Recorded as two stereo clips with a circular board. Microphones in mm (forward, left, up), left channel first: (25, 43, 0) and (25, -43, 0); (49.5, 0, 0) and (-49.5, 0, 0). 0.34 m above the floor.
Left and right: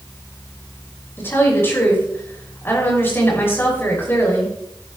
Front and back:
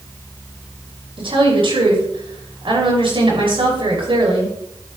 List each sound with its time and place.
1.2 s a woman speaking: 155° left, 5 m